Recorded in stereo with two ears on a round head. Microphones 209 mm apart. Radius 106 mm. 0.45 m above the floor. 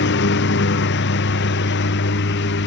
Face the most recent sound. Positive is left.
turn(degrees=50)  # may be behind; listen again after turning